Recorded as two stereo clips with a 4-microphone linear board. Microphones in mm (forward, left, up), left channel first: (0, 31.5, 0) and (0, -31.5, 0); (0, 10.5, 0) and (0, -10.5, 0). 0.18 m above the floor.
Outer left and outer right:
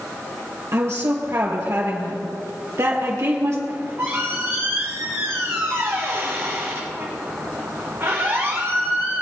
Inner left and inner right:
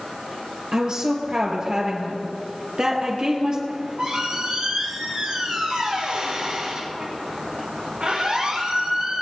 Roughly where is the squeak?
Right.